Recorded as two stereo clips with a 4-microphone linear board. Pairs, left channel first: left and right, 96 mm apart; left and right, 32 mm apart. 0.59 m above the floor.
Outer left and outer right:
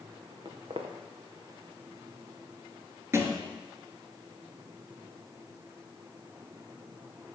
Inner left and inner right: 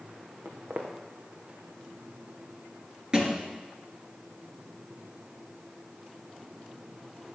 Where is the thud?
30° right (ahead or behind), 2.5 m.